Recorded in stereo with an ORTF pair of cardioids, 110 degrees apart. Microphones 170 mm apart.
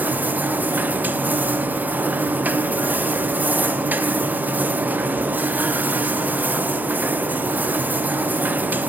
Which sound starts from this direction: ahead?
A machine running, at 0.0 s.